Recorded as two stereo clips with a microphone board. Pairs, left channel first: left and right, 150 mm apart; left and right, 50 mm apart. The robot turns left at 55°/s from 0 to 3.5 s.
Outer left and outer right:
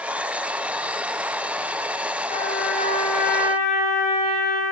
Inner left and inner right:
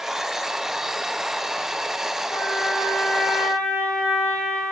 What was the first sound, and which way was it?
A trumpet, 65° left.